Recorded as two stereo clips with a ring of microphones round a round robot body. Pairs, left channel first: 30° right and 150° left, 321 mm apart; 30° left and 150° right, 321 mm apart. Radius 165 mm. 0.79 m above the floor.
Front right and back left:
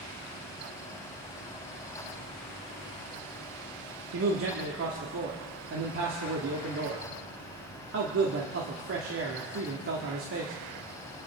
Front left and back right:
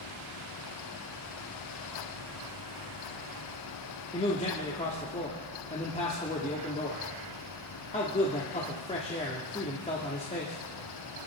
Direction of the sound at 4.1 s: 100° left.